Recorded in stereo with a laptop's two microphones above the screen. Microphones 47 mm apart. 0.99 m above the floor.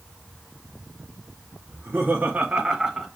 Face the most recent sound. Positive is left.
turn(degrees=0)  # may be behind; listen again after turning